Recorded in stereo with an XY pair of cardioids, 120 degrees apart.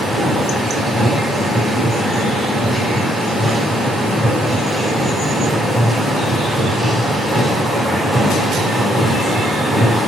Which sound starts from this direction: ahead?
A machine running, at 0.0 s.